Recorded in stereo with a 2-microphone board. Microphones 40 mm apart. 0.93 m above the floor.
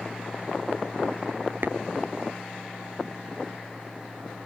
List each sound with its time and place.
1.6 s tapping: 70° right (ahead or behind)